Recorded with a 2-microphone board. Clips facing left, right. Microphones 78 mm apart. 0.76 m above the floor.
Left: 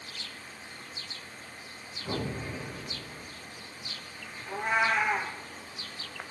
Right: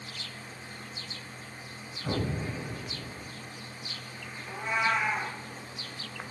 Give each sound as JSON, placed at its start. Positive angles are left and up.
{"t": 2.0, "sound": "an explosion", "side_deg": -55, "distance_m": 3.0}
{"t": 4.5, "sound": "a cat meowing", "side_deg": 60, "distance_m": 1.4}